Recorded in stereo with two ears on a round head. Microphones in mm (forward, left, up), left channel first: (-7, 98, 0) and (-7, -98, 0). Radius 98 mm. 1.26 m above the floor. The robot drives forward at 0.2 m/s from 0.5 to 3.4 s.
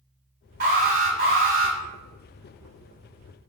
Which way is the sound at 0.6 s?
40° right (ahead or behind).